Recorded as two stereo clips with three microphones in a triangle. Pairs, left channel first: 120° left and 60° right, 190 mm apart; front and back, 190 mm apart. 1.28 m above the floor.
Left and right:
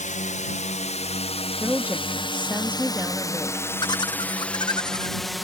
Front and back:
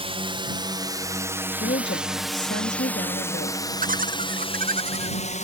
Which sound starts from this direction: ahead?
A woman speaking, at 1.6 s.